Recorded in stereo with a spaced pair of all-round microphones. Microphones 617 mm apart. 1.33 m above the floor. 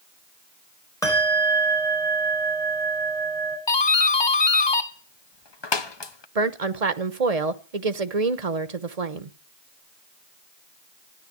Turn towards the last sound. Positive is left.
turn(degrees=-80)